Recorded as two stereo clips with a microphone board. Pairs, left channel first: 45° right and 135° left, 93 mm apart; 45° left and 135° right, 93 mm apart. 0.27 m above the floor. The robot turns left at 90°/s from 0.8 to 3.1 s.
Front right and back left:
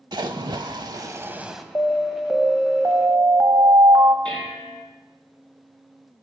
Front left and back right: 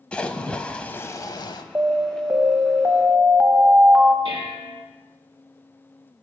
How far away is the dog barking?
No dog barking in this recording.